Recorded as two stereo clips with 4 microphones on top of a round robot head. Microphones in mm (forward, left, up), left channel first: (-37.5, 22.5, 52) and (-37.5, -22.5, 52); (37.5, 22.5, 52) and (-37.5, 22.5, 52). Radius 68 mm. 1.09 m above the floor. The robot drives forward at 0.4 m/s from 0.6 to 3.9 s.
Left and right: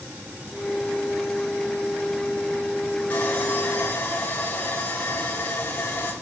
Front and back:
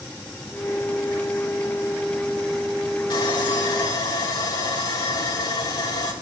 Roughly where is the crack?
No crack in this recording.